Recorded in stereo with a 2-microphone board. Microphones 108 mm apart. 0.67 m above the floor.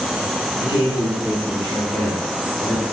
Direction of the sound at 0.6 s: 35° left (ahead or behind).